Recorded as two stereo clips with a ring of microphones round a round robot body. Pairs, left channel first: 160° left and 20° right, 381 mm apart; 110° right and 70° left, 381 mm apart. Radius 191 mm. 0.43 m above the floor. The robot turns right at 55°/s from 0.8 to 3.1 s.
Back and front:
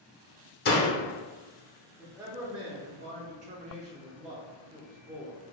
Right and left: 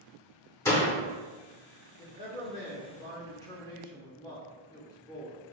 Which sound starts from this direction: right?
A man speaking, at 2.0 s.